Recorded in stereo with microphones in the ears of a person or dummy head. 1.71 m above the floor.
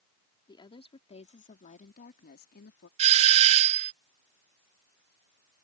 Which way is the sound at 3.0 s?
30° right (ahead or behind).